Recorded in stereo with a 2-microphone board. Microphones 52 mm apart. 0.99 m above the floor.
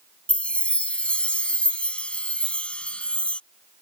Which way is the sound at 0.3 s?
25° left (ahead or behind).